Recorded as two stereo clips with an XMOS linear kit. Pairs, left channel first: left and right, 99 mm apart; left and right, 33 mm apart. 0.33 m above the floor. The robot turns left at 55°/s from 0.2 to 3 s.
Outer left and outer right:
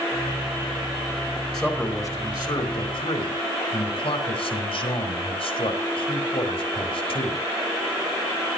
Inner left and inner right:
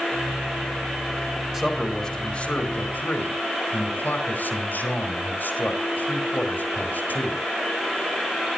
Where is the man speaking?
Centre (ahead or behind), 4.5 m; by 7.4 s 75° left (ahead or behind), 4.5 m.